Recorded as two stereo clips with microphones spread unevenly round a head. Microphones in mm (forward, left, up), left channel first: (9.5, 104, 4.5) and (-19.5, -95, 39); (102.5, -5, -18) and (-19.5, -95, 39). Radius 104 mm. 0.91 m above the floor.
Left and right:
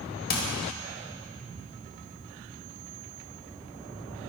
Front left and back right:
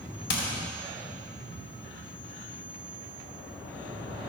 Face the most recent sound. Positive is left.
turn(degrees=35)